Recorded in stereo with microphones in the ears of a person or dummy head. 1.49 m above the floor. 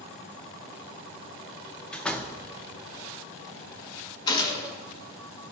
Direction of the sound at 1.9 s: 5° left (ahead or behind).